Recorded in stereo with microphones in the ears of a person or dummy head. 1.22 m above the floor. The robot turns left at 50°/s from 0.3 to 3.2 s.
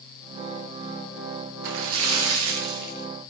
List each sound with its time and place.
1.6 s a splash: 60° right, 0.5 m; by 3.1 s 130° right, 0.5 m